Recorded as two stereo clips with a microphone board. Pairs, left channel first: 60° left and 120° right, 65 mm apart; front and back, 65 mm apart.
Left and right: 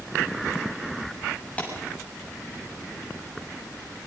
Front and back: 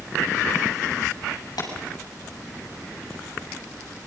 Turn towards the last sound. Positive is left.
turn(degrees=-10)